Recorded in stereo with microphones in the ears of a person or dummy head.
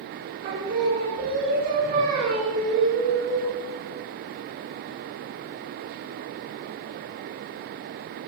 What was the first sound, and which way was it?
Singing, 50° right (ahead or behind).